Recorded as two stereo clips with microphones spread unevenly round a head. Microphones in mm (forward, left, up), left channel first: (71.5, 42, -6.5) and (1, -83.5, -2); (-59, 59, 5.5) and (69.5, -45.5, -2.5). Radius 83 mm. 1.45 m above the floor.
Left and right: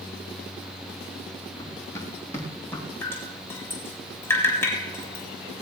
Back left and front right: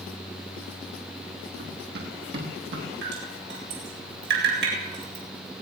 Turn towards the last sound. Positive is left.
turn(degrees=-15)